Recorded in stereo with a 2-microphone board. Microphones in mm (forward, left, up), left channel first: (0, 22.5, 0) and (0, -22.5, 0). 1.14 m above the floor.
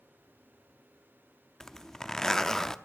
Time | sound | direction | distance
1.6 | a zipper | 15° left (ahead or behind) | 0.6 m